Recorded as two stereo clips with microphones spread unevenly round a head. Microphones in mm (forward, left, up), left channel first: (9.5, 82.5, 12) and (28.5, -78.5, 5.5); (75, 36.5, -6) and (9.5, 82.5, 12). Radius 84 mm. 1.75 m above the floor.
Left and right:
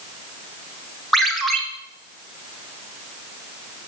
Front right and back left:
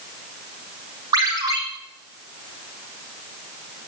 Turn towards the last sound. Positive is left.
turn(degrees=-175)